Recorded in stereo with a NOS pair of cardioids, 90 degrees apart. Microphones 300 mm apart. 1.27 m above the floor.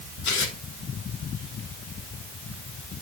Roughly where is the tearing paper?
Left.